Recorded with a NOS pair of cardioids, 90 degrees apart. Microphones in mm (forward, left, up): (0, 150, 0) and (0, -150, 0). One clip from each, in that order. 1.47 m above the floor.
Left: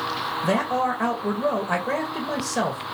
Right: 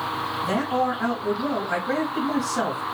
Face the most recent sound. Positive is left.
turn(degrees=65)